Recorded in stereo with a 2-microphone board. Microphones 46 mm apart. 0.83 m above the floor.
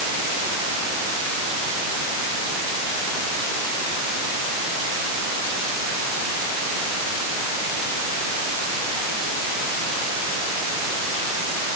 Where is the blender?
I don't hear a blender.